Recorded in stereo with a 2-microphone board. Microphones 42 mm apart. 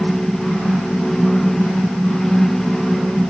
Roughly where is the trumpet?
I don't hear a trumpet.